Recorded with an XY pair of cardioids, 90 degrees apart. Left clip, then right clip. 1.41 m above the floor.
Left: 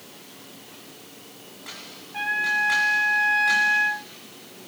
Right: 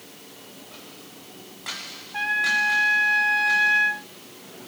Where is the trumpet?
25° right, 1.8 m.